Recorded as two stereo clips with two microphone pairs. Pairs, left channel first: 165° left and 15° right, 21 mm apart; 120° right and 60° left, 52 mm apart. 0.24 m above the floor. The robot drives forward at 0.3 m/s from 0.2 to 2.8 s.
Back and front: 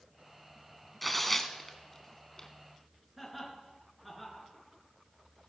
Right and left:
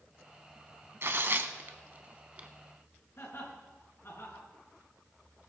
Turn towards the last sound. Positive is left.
turn(degrees=-90)